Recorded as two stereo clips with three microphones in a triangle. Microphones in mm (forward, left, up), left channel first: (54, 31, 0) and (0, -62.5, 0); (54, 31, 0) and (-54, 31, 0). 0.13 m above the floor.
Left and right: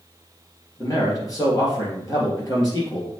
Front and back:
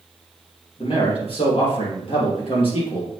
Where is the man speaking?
10° left, 3.5 m.